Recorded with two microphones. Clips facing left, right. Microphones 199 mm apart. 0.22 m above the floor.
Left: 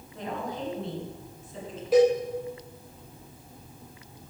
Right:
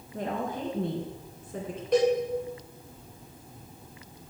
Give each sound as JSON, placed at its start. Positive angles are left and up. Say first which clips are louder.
{"t": 0.1, "sound": "a woman speaking", "louder": "right 2 dB", "side_deg": -50, "distance_m": 3.0}
{"t": 1.9, "sound": "a cowbell", "louder": "left 3 dB", "side_deg": 5, "distance_m": 3.5}